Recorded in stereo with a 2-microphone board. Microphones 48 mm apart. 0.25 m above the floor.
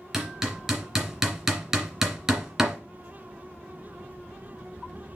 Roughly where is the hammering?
Centre.